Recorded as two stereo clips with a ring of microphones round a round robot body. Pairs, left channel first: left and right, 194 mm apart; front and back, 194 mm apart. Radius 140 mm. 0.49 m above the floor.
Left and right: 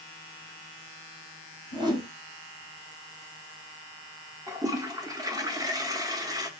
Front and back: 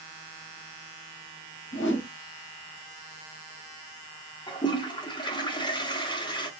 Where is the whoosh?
20° right, 1.4 m.